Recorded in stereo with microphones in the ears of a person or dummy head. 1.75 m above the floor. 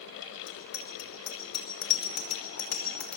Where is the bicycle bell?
65° left (ahead or behind), 5 m; by 3.2 s 50° left (ahead or behind), 4.5 m.